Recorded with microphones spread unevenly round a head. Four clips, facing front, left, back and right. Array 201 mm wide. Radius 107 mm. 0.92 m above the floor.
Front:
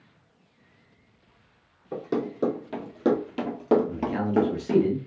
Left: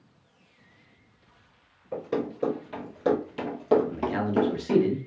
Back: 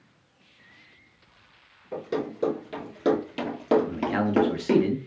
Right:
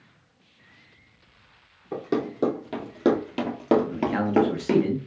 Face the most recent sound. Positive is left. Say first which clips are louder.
# right 3 dB, back 2 dB
turn(degrees=-160)